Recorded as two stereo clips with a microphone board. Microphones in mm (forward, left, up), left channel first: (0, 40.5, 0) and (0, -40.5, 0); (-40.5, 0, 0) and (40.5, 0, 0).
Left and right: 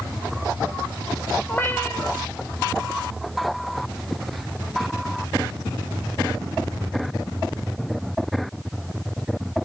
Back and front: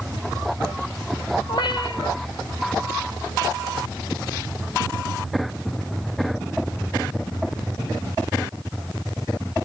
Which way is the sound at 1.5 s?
155° left.